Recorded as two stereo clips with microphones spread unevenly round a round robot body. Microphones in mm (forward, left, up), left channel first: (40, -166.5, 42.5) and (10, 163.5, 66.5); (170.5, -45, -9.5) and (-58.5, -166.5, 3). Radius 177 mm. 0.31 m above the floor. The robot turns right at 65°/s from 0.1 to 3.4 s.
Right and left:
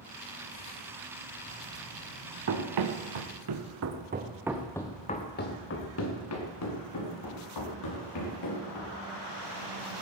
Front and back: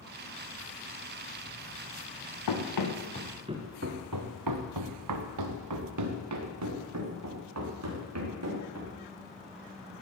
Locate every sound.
2.5 s running footsteps: 45° left, 2.5 m; by 8.9 s 120° right, 6.5 m